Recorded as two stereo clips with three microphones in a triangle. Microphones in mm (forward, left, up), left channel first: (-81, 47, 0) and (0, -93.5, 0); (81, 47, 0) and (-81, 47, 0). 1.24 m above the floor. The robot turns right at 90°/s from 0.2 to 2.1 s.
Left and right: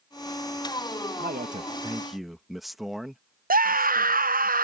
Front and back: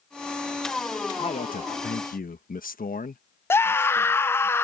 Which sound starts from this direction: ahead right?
A man speaking, at 1.2 s.